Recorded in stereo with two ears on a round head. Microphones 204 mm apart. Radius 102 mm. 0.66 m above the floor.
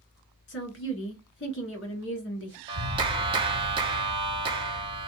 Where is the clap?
25° right (ahead or behind), 0.9 m.